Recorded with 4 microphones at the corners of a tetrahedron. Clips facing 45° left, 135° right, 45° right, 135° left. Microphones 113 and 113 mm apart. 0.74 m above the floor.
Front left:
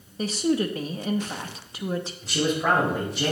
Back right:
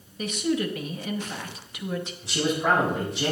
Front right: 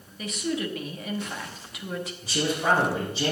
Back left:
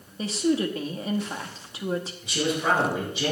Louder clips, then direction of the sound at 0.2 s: Front left 2 dB, back left 5 dB; 90° left.